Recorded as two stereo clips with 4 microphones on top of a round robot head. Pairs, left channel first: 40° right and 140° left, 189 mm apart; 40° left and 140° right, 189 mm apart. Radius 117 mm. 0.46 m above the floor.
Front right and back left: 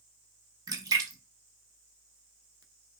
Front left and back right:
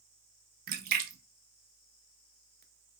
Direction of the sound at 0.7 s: 155° right.